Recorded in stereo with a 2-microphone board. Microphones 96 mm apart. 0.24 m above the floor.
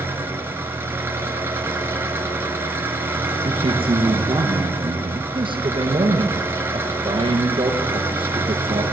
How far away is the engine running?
About 4 m.